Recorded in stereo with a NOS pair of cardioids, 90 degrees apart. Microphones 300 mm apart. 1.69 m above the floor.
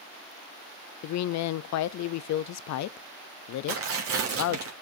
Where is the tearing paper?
50° right, 3 m.